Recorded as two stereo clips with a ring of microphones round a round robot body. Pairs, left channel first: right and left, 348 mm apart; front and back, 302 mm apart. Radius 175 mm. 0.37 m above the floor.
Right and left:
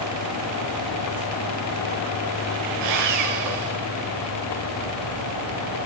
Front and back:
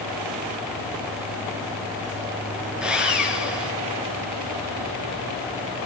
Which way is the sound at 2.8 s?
95° left.